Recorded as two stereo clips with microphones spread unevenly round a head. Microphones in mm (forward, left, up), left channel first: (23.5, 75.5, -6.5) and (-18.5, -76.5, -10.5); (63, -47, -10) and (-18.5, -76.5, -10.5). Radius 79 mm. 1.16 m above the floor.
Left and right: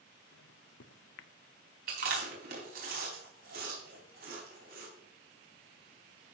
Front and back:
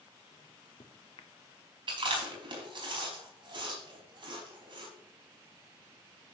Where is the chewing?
140° right, 4.5 m.